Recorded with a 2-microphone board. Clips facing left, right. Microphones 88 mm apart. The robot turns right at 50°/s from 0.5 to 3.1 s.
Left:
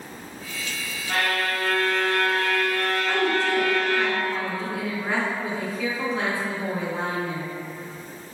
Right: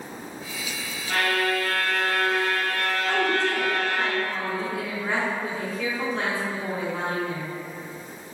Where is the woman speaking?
5° left (ahead or behind), 0.8 m.